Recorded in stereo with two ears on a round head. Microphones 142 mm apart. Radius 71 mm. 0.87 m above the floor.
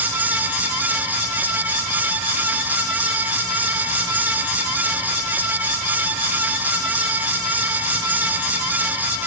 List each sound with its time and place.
Only background noise.